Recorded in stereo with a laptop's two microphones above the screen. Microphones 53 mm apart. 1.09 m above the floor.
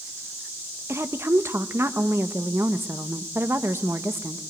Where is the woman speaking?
55° right (ahead or behind), 1.0 m.